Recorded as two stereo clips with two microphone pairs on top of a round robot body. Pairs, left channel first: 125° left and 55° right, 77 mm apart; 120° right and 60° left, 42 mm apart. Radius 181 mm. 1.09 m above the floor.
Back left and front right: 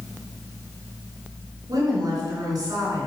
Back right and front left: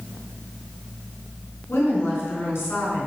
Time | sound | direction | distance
1.7 | a woman speaking | 90° right | 3.5 m